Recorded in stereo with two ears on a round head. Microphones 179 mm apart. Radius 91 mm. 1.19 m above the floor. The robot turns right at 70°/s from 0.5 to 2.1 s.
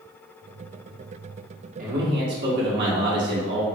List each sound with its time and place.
1.8 s a man speaking: 45° right (ahead or behind), 1.3 m; by 3.6 s 60° right (ahead or behind), 1.3 m